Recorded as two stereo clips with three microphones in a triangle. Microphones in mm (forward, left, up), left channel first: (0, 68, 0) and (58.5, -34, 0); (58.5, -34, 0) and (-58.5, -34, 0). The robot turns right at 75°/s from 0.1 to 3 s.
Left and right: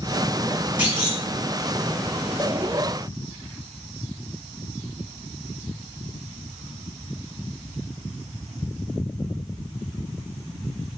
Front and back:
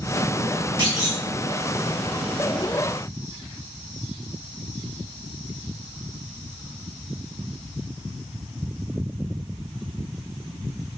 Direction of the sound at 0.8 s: 135° right.